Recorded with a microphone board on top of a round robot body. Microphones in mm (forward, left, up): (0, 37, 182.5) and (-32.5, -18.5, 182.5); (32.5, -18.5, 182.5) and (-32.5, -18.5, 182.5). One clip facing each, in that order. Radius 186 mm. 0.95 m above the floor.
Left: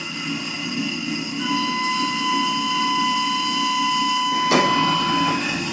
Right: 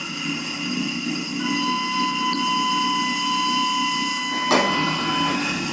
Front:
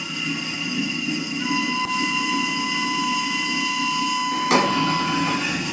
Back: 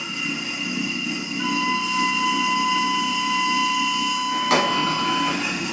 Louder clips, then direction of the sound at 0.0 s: Even, front 1 dB; 120° right.